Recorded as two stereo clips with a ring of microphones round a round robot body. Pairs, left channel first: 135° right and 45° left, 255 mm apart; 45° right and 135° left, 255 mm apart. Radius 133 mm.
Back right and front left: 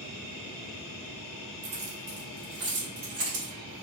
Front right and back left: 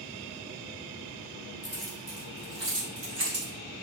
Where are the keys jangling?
35° left, 1.4 m; by 3.5 s 85° left, 2.5 m.